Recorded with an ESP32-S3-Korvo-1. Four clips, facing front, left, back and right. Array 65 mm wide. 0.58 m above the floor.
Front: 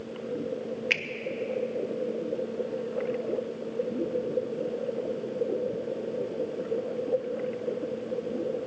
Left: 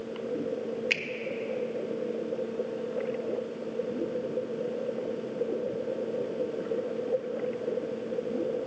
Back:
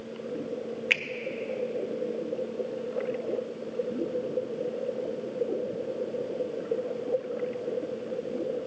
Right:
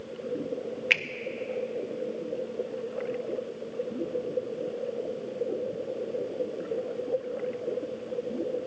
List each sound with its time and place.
0.9 s a finger snap: 105° right, 0.7 m